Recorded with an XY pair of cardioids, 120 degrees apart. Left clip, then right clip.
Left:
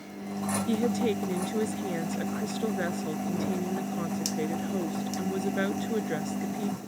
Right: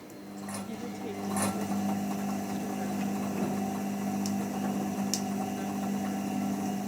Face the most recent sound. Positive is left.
turn(degrees=80)